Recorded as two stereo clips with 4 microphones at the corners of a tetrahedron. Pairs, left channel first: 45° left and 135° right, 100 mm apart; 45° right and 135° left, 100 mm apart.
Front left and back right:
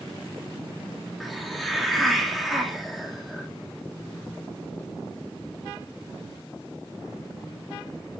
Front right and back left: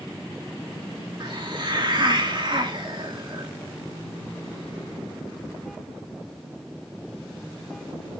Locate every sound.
1.2 s a hiss: 135° left, 1.5 m